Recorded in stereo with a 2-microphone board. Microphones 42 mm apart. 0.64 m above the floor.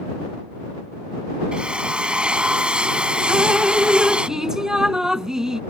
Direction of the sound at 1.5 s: 20° right (ahead or behind).